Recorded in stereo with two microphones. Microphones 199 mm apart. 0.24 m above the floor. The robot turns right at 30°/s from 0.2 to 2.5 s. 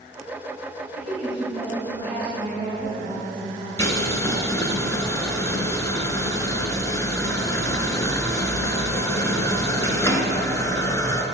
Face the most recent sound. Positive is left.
turn(degrees=15)  # may be behind; listen again after turning